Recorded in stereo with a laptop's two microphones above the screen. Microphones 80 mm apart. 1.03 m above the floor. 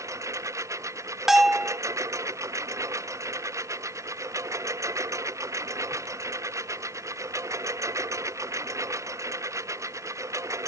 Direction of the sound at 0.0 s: 45° right (ahead or behind).